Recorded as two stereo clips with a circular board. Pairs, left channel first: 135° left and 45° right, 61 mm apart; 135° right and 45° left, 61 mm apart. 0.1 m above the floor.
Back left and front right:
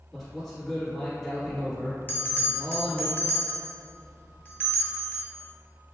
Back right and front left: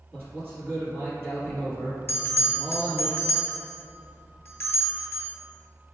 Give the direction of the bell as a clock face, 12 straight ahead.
6 o'clock.